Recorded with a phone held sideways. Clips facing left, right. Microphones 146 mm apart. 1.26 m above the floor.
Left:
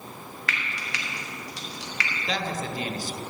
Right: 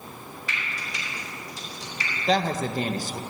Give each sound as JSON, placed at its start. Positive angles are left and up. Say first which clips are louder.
{"t": 0.5, "sound": "frying", "louder": "left 2 dB", "side_deg": 80, "distance_m": 1.3}
{"t": 2.3, "sound": "a woman speaking", "louder": "right 7 dB", "side_deg": -45, "distance_m": 0.7}